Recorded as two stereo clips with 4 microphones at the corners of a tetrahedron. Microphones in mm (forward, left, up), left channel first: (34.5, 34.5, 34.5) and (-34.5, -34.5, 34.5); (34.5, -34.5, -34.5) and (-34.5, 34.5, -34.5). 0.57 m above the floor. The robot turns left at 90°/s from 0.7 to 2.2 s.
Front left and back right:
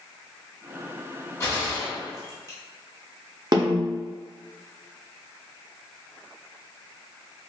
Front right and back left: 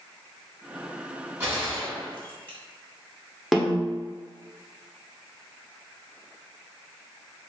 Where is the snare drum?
135° right, 0.7 m.